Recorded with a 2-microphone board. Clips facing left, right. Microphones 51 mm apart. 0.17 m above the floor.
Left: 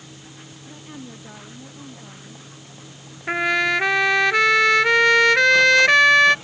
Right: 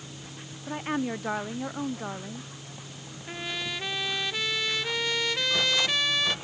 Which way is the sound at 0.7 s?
55° right (ahead or behind).